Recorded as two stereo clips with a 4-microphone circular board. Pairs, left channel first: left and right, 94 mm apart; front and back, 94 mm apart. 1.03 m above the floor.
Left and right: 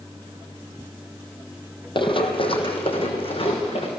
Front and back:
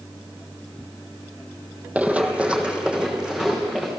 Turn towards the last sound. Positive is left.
turn(degrees=100)